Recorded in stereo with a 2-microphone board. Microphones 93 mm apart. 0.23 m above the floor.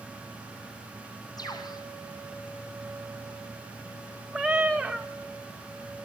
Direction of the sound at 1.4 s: 45° left (ahead or behind).